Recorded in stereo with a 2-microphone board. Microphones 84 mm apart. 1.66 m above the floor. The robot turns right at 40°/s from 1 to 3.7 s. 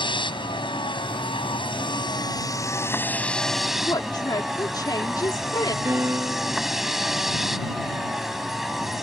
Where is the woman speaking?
55° left (ahead or behind).